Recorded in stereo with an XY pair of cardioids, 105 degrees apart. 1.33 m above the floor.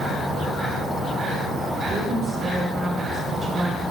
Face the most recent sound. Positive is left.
turn(degrees=-40)